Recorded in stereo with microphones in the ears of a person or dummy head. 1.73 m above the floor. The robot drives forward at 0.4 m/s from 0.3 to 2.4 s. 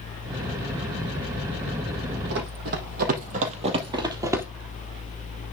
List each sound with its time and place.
2.3 s running footsteps: 55° right (ahead or behind), 3 m; by 4.5 s 15° right (ahead or behind), 2 m